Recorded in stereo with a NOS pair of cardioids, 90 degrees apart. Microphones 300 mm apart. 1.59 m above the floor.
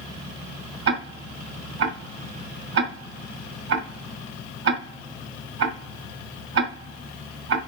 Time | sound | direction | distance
0.9 | ticking | 65° right | 2 m